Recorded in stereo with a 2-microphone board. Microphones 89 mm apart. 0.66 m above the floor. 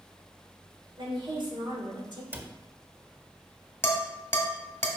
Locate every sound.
1.0 s a woman speaking: 65° right (ahead or behind), 3 m; by 2.2 s 60° right (ahead or behind), 2 m
2.3 s a cupboard door: 20° right (ahead or behind), 0.9 m
3.8 s dishes clattering: 25° left (ahead or behind), 1.9 m